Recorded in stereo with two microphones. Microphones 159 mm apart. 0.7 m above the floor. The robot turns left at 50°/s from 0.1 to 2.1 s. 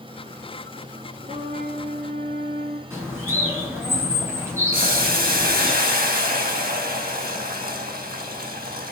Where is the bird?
15° right (ahead or behind), 7 m.